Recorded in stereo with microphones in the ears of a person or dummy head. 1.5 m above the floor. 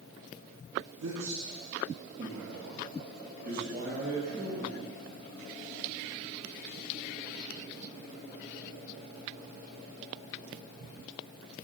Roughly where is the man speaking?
Right.